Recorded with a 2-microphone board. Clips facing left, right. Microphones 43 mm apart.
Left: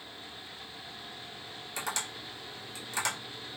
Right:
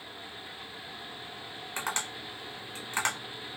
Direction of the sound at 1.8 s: 40° right (ahead or behind).